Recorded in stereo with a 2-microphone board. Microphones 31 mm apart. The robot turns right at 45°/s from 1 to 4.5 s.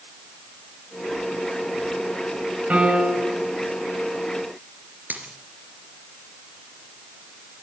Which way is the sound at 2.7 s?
125° right.